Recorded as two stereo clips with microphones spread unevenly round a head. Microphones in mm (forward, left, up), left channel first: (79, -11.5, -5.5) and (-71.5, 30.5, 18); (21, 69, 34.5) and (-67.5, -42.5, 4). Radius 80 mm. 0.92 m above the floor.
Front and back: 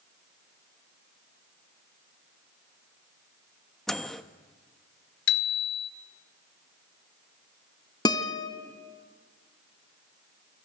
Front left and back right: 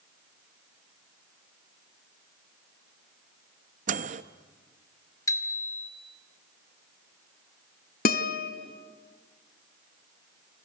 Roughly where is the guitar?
Ahead left.